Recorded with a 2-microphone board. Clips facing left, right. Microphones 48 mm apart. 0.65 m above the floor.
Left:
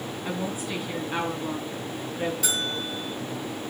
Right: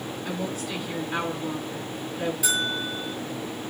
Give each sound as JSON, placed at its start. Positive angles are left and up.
{"t": 0.2, "sound": "a woman speaking", "side_deg": 15, "distance_m": 5.5}
{"t": 2.4, "sound": "a bell", "side_deg": -10, "distance_m": 7.0}